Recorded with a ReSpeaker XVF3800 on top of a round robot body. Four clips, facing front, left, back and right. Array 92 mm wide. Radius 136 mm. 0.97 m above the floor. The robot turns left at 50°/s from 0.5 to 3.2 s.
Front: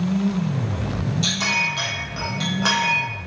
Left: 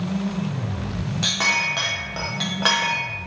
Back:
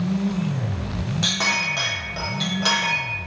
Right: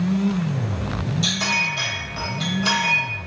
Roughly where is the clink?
Behind left.